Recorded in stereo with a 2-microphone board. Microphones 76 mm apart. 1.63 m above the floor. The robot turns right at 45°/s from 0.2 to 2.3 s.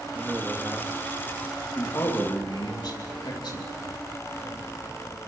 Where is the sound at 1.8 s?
40° left (ahead or behind), 3 m; by 3.7 s 65° left (ahead or behind), 3 m.